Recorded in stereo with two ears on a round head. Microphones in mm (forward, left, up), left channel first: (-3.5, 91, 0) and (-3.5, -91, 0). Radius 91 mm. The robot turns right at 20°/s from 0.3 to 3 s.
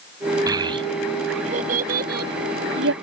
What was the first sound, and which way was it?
A child speaking, 20° right (ahead or behind).